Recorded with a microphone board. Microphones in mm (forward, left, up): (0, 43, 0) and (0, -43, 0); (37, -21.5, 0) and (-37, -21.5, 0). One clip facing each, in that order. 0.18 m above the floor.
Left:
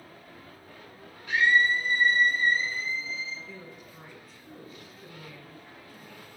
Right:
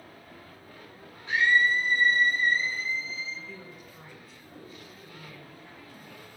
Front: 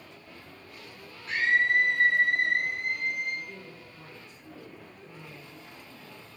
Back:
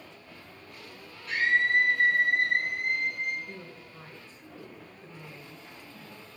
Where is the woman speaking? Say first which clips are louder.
Even, back 1 dB; straight behind, 1.5 m.